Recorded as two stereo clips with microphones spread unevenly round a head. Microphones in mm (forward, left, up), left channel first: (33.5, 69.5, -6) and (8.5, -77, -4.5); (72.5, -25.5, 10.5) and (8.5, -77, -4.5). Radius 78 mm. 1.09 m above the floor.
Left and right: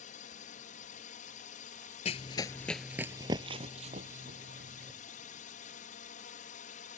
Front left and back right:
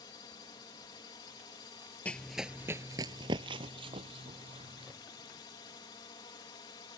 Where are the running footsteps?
95° left; by 4.9 s 135° right.